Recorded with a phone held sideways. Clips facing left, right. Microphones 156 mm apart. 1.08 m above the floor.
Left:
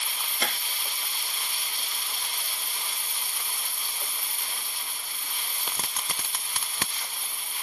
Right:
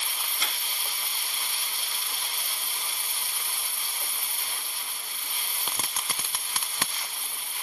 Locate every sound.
0.4 s tapping: 60° left (ahead or behind)